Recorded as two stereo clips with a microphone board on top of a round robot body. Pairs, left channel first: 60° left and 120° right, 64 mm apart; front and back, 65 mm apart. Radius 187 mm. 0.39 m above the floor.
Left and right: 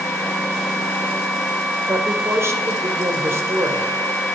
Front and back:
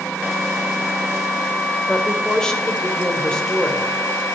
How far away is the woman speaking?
About 2 m.